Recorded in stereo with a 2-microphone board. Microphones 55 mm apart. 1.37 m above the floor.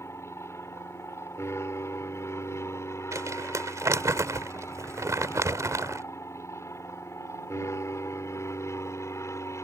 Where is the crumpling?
75° right (ahead or behind).